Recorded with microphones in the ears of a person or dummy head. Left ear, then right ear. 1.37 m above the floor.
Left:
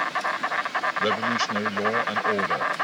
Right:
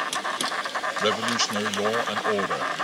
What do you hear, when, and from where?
0.0 s an insect: 10° left (ahead or behind)
1.0 s a man speaking: 30° right (ahead or behind)